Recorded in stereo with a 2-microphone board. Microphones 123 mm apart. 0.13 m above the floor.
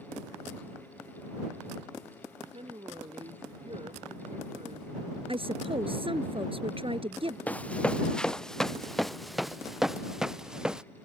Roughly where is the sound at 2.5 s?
Right.